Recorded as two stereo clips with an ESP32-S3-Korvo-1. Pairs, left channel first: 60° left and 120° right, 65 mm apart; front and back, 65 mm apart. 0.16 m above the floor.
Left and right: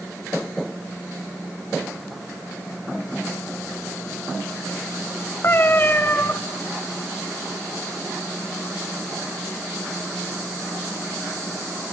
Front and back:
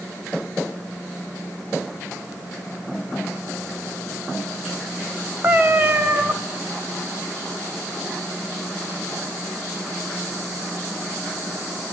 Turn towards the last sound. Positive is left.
turn(degrees=120)